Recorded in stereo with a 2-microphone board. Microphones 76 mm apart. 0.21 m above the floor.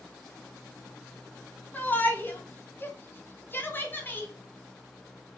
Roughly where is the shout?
Left.